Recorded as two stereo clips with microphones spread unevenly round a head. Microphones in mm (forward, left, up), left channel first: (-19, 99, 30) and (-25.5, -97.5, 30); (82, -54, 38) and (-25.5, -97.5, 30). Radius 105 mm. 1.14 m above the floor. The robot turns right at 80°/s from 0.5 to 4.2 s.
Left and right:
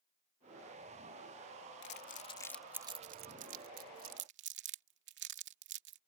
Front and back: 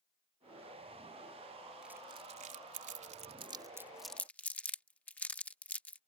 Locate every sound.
1.8 s crumpling: 115° left; by 6.0 s 55° right